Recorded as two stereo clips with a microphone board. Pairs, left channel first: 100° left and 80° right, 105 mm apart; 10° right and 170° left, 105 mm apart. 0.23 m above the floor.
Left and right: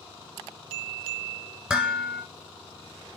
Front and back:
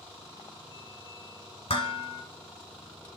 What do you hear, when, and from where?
1.7 s dishes clattering: straight ahead, 1.6 m